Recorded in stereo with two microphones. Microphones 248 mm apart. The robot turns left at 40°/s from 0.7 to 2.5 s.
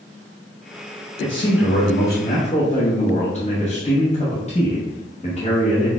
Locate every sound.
1.2 s a man speaking: 90° left, 0.9 m; by 5.9 s 35° left, 0.9 m